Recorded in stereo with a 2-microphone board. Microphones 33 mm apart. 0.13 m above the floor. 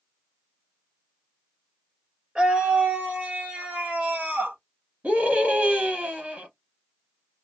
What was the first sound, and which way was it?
A scream, 35° right (ahead or behind).